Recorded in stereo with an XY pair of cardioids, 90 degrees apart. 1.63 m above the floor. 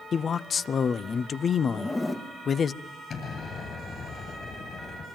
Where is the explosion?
60° left, 9 m.